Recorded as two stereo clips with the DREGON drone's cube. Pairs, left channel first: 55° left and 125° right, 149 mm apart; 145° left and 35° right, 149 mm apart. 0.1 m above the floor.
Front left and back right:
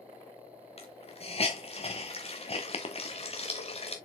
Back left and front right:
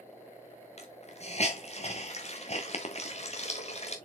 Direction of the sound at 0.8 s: 105° left.